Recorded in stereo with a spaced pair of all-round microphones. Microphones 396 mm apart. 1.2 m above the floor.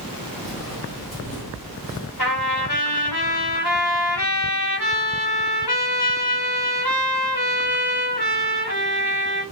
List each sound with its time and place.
0.4 s footsteps: 60° left (ahead or behind), 3 m; by 2.1 s 55° left (ahead or behind), 1.9 m
2.2 s a trumpet: 80° left, 2 m